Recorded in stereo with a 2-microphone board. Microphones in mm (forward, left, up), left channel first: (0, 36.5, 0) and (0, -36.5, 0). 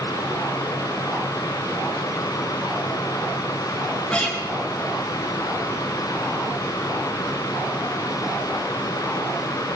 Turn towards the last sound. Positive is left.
turn(degrees=15)  # may be behind; listen again after turning